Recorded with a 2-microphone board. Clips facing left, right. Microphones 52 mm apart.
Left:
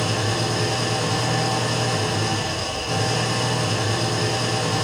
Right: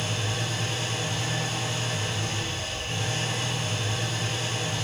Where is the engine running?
75° left (ahead or behind), 5.5 m.